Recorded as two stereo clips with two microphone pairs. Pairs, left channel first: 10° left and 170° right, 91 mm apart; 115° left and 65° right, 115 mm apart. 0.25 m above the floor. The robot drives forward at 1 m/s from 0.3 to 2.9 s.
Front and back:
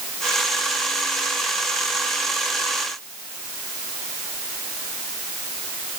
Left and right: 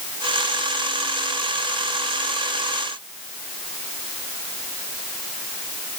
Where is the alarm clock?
No alarm clock in this recording.